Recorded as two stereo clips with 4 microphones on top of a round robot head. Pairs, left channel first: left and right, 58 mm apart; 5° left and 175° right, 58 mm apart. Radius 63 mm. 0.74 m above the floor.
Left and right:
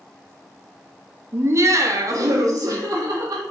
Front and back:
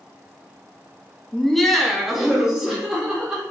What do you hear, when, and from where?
1.3 s laughter: 75° right, 0.6 m; by 3.4 s 95° right, 1.8 m